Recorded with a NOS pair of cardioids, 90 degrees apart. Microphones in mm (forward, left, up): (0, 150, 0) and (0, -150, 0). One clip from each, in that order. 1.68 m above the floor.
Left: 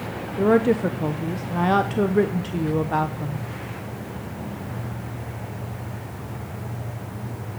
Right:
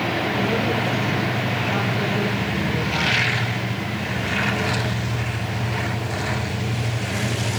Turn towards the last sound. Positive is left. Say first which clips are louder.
# left 3 dB
turn(degrees=60)